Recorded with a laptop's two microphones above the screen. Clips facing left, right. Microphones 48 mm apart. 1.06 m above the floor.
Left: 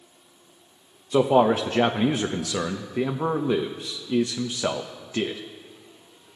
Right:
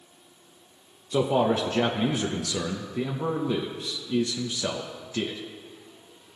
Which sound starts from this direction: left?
A man speaking, at 1.1 s.